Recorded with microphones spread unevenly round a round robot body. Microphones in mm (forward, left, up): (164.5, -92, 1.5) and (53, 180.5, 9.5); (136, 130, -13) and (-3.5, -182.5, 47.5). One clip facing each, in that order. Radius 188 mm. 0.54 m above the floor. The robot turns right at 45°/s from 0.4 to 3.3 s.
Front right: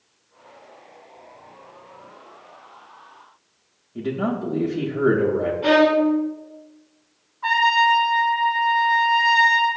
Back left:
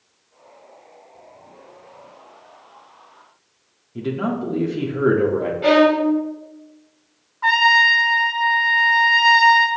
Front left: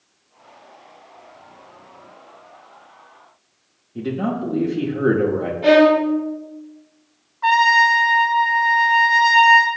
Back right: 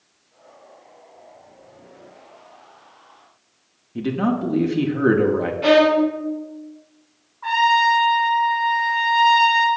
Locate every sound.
4.0 s a man speaking: straight behind, 0.7 m
5.6 s a violin: 175° left, 0.7 m
7.4 s a trumpet: 100° left, 1.4 m